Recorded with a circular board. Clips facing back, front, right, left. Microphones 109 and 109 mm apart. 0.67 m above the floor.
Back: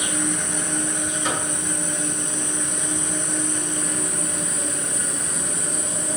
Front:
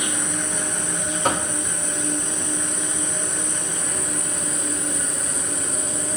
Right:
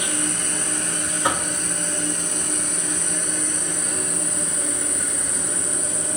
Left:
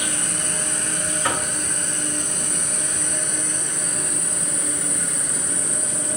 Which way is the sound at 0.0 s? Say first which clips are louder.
Back 2 dB, right 2 dB; 125° right.